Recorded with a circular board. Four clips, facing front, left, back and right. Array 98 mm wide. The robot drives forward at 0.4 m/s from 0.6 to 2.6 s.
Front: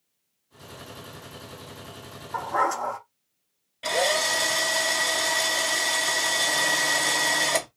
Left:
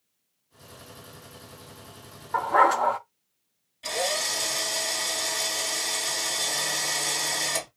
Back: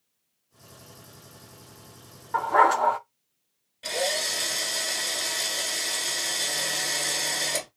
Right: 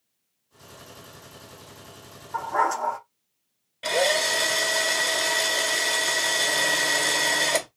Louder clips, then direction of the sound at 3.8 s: Right 6 dB, front 5 dB; 55° right.